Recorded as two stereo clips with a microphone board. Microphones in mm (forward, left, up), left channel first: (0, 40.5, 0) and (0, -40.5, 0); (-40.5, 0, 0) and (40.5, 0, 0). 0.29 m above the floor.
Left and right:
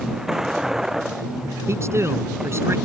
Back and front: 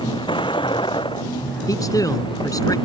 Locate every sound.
0.0 s a vehicle: 175° right; by 2.9 s 170° right
1.7 s a man speaking: 140° right